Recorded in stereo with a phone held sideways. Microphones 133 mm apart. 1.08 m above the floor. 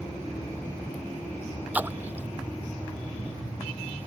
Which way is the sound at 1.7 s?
15° right (ahead or behind).